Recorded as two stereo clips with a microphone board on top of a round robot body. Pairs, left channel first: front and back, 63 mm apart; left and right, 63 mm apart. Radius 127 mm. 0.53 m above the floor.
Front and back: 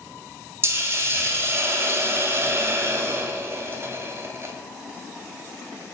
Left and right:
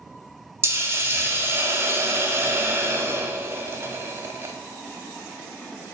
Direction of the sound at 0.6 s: 135° right.